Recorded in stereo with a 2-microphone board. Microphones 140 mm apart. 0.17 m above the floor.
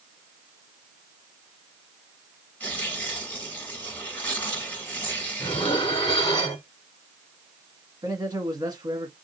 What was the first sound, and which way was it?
Tearing paper, 10° left (ahead or behind).